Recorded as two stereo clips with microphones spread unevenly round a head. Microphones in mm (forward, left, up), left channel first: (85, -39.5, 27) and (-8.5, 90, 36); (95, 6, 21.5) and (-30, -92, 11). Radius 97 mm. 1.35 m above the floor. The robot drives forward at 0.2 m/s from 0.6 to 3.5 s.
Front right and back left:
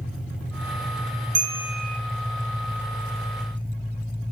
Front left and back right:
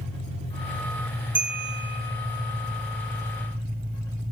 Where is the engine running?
150° right, 1.7 m; by 4.3 s 160° right, 2 m.